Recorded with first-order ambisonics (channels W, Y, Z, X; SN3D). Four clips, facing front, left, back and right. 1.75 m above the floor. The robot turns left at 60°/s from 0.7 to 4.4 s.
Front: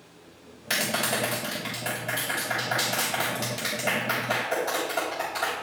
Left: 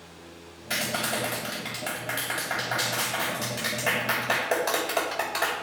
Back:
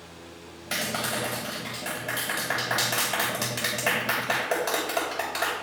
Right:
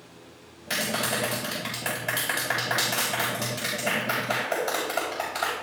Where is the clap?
10° right, 6.5 m; by 5.5 s 130° left, 6.5 m.